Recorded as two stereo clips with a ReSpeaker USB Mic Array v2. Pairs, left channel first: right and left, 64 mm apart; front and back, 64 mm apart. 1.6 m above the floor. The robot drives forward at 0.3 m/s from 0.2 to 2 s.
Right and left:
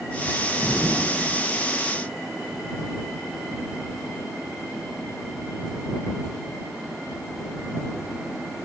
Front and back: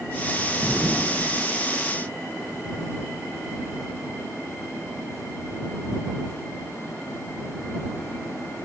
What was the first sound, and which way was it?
An explosion, 140° left.